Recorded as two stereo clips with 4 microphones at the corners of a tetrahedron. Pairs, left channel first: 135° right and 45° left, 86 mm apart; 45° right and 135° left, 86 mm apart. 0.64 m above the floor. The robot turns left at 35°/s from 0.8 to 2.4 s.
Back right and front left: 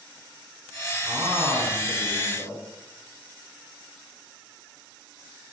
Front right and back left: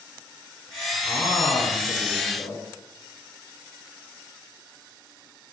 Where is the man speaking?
5° left, 6.5 m; by 2.6 s 45° right, 6.5 m.